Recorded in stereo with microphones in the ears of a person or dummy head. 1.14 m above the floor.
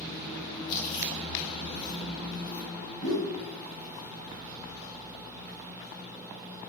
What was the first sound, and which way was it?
Chewing, 55° left (ahead or behind).